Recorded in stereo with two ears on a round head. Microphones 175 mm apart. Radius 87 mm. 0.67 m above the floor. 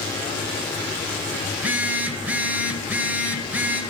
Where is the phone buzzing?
10° right (ahead or behind), 0.6 m.